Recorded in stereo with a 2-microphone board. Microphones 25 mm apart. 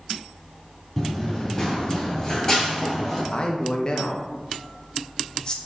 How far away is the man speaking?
About 0.5 m.